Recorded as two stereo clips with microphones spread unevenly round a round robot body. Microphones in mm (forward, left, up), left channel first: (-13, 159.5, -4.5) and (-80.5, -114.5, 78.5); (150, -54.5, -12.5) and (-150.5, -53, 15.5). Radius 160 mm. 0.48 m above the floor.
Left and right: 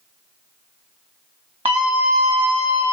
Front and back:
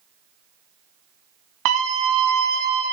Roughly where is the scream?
Behind.